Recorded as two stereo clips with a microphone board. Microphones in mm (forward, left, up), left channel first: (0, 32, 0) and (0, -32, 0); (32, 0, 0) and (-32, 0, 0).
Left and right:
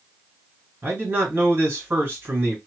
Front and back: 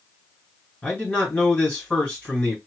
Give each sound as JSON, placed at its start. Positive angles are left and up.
{"t": 0.8, "sound": "a man speaking", "azimuth_deg": -60, "distance_m": 2.0}